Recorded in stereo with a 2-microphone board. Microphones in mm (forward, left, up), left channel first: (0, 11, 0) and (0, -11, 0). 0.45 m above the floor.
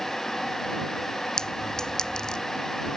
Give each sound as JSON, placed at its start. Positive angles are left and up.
{"t": 1.4, "sound": "a clink", "side_deg": 35}